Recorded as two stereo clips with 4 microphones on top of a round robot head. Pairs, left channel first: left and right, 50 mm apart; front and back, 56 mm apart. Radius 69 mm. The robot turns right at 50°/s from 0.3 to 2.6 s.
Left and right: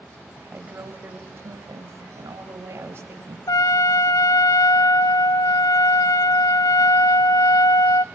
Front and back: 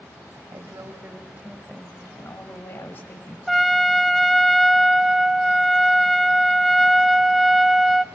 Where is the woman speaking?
160° right, 3 m; by 3.4 s 55° right, 3 m.